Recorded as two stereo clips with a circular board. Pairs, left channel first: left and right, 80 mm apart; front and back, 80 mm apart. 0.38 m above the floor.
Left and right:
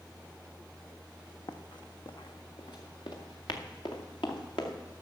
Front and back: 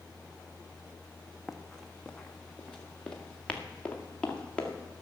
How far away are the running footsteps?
About 0.9 m.